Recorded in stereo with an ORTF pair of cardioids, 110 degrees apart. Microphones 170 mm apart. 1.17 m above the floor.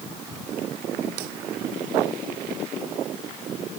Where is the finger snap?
No finger snap in this recording.